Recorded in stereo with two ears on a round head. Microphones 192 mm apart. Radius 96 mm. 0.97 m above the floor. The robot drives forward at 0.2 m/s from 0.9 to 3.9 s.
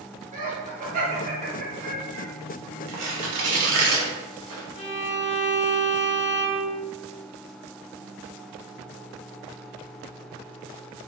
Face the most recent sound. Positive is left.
turn(degrees=25)  # may be behind; listen again after turning